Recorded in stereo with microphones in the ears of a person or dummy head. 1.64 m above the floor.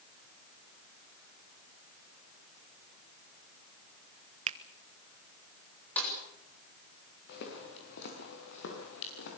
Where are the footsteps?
60° left (ahead or behind), 8.5 m; by 9.4 s 70° left (ahead or behind), 9 m.